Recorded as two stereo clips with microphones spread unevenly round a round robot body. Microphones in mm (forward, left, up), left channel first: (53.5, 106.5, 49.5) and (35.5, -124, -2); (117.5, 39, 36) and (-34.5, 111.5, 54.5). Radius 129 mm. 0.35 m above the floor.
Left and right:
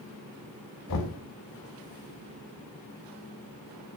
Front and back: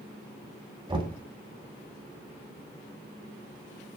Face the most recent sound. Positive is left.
turn(degrees=95)